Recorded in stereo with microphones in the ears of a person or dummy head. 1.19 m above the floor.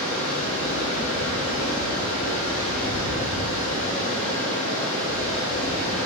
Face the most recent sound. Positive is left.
turn(degrees=40)  # may be behind; listen again after turning